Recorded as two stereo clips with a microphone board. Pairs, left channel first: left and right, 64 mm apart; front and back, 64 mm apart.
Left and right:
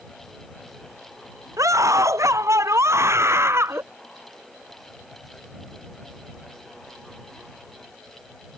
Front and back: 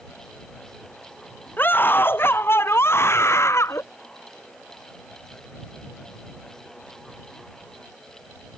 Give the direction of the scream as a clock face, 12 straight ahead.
2 o'clock.